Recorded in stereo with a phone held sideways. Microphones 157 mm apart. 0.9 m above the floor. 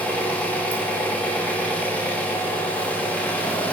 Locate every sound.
0.0 s an engine running: 10° left (ahead or behind), 0.8 m